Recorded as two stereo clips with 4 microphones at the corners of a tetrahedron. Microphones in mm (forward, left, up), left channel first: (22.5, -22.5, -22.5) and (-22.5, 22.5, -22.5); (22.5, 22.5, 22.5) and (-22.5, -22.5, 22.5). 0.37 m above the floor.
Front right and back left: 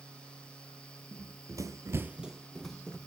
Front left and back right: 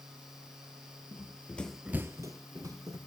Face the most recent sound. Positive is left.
turn(degrees=-125)